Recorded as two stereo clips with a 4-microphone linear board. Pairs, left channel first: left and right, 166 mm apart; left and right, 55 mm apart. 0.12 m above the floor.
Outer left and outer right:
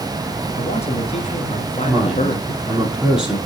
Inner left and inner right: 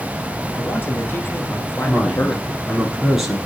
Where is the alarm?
No alarm in this recording.